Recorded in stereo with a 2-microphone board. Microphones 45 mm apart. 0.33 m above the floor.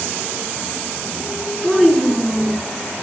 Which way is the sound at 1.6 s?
10° left (ahead or behind).